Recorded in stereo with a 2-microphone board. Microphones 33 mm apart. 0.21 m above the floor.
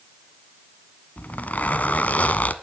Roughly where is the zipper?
Left.